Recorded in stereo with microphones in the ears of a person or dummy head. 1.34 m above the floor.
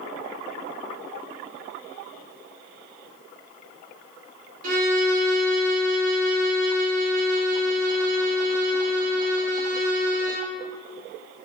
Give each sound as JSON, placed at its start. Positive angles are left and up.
{"t": 4.6, "sound": "a violin", "side_deg": -50, "distance_m": 0.9}